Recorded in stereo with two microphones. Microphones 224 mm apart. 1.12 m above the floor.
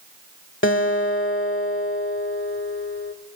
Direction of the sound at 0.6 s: 60° left (ahead or behind).